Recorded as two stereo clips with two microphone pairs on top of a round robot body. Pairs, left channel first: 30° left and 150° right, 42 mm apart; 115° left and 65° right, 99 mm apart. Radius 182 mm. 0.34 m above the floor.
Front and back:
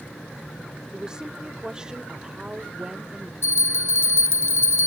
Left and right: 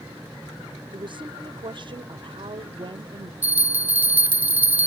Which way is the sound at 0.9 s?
80° right.